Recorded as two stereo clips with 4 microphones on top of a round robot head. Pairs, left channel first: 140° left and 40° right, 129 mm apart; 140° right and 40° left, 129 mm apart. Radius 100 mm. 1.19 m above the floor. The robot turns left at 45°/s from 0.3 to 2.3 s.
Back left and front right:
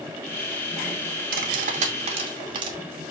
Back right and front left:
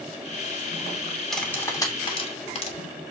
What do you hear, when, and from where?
1.3 s cutlery clinking: 50° right, 2.5 m; by 2.8 s 95° right, 2.5 m